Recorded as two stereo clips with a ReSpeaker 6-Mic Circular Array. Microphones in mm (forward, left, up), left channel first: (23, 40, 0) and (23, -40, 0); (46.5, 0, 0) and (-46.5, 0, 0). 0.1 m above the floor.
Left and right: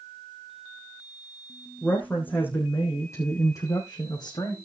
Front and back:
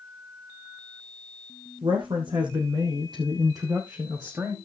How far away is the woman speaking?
About 4 m.